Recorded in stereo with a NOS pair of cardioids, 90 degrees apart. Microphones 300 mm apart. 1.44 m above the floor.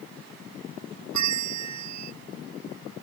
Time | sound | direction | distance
1.1 | a bell | 70° right | ?